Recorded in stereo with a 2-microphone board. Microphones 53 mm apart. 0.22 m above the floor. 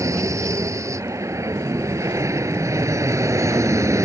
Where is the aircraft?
70° right (ahead or behind); by 4.0 s 65° right (ahead or behind).